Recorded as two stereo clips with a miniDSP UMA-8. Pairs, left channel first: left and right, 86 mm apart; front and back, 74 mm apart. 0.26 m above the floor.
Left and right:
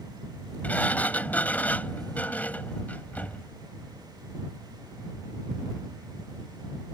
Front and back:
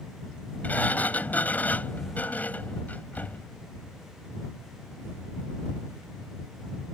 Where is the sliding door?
40° left.